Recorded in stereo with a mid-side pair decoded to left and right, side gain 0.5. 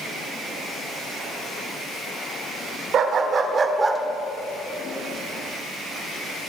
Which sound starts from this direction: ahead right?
A dog barking, at 2.9 s.